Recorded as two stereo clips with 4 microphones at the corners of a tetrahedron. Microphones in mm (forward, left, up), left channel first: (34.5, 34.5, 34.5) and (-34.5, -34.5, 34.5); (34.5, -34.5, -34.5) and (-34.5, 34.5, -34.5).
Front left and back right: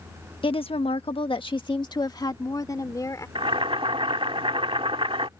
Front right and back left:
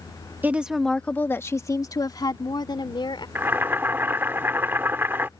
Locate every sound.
0.4 s a woman speaking: 65° left; by 3.2 s 10° right
3.4 s boiling: 155° right